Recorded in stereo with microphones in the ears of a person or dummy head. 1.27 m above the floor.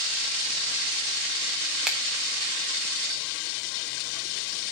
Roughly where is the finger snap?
Centre.